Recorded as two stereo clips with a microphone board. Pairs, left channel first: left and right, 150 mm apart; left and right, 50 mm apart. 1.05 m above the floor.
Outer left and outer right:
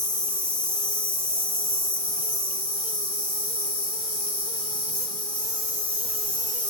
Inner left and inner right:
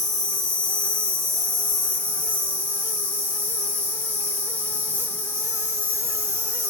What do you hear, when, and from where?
0.0 s an insect: 35° right (ahead or behind), 1.1 m